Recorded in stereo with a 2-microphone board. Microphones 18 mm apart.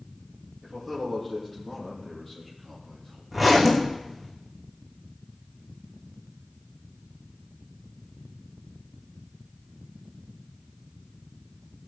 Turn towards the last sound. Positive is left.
turn(degrees=-5)  # may be behind; listen again after turning